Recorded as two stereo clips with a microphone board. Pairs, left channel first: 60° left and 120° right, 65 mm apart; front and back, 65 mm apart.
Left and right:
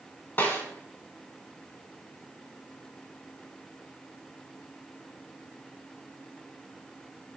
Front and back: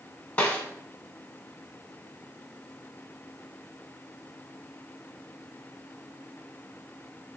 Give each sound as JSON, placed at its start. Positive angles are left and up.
{"t": 0.4, "sound": "a snare drum", "azimuth_deg": 45, "distance_m": 0.8}